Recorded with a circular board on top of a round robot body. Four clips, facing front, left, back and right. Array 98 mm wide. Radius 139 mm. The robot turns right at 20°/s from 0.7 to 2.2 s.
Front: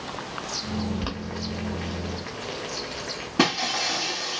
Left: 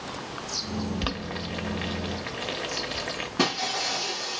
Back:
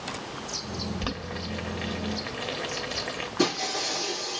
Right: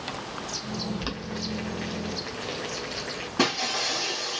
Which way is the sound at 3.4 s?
Straight ahead.